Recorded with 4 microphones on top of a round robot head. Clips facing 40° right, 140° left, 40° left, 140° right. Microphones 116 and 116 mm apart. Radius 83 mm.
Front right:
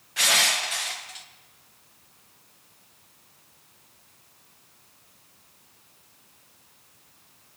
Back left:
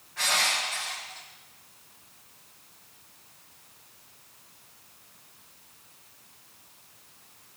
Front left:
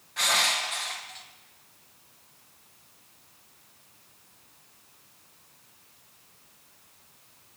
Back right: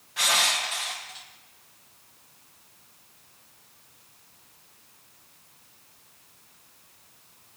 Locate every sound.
0.2 s crushing: 55° right, 0.8 m